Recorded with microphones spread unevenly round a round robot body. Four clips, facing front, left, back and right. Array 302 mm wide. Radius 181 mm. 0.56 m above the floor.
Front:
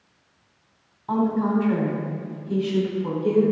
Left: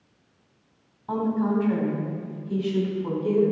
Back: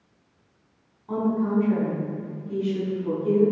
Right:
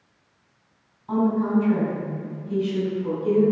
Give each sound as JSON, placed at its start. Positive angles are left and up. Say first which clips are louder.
{"t": 1.1, "sound": "a woman speaking", "louder": "right 3 dB, front 2 dB", "azimuth_deg": 25, "distance_m": 3.5}